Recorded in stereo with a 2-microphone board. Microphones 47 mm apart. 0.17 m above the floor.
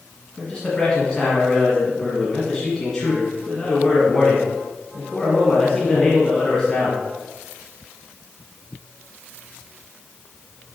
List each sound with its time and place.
0.4 s a man speaking: 15° left (ahead or behind), 1.6 m